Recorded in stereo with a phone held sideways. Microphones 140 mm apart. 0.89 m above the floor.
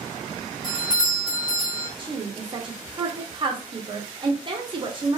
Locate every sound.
0.6 s a doorbell: 5° right (ahead or behind), 1.1 m
2.0 s a woman speaking: 35° right (ahead or behind), 0.6 m